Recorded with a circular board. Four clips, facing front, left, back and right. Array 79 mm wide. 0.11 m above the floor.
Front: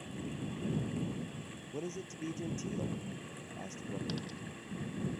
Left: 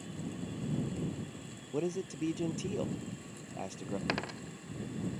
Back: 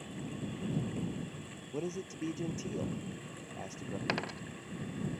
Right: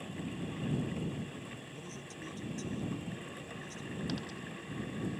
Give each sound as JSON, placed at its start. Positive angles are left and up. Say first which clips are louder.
{"t": 1.7, "sound": "a man speaking", "louder": "left 12 dB, back 3 dB", "azimuth_deg": 100}
{"t": 4.1, "sound": "a dropped coin", "louder": "left 4 dB, back 5 dB", "azimuth_deg": 140}